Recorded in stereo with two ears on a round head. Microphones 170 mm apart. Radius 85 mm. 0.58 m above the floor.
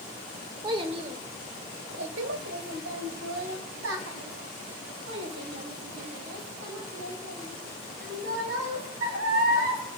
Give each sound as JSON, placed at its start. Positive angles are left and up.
{"t": 0.6, "sound": "a child speaking", "side_deg": -25, "distance_m": 1.6}